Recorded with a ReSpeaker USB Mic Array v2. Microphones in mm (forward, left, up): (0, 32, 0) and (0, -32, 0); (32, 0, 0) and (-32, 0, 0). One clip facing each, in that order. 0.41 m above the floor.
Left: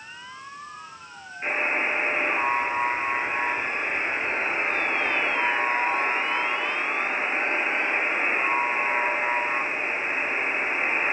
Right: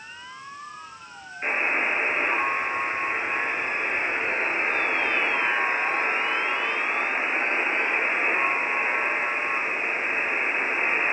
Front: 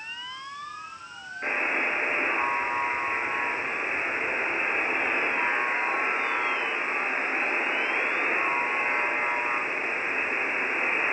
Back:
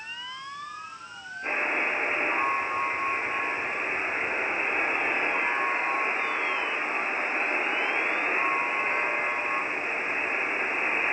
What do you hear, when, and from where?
1.4 s a buzzer: 15° right, 7 m